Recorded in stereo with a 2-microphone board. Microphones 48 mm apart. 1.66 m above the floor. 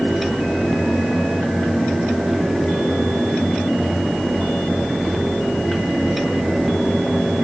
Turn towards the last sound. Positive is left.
No sound to turn to.